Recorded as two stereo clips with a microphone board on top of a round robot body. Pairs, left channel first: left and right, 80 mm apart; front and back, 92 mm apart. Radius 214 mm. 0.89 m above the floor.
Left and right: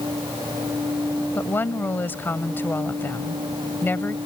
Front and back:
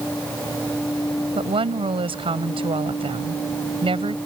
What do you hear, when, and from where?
1.4 s a woman speaking: 155° left